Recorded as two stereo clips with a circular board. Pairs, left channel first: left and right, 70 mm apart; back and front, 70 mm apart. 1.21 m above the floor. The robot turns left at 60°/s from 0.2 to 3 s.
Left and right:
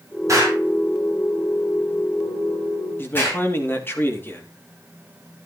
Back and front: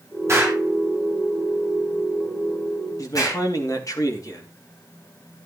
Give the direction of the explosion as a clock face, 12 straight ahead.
2 o'clock.